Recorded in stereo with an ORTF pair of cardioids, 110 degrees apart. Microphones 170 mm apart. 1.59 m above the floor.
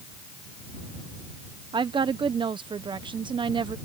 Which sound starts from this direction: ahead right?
A woman speaking, at 1.7 s.